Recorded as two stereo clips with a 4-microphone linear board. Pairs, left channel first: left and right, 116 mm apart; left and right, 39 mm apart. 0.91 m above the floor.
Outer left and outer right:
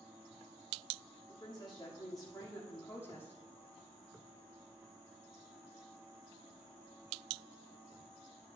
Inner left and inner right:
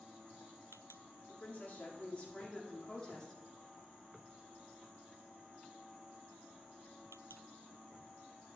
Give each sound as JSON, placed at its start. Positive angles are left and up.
{"t": 1.3, "sound": "a woman speaking", "side_deg": 45, "distance_m": 2.0}